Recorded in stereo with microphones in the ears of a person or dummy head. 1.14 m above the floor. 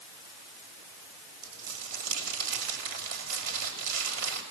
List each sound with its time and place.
1.4 s crumpling: 70° right (ahead or behind), 7 m